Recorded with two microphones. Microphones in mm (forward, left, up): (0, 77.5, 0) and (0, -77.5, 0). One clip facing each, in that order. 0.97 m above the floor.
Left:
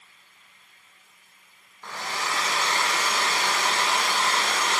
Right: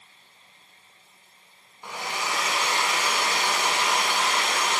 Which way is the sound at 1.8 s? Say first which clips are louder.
Even; 15° right (ahead or behind).